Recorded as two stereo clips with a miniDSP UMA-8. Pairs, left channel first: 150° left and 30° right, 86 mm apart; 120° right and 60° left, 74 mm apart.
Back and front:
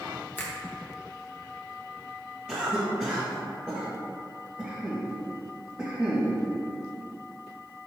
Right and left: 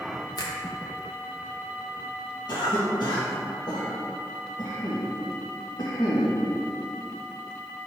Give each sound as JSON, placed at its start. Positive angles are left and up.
{"t": 0.4, "sound": "a finger snap", "azimuth_deg": -145, "distance_m": 1.0}
{"t": 2.5, "sound": "a cough", "azimuth_deg": -105, "distance_m": 1.4}